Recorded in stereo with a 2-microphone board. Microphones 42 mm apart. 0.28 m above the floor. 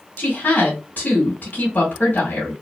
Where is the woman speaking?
40° left (ahead or behind), 2 m.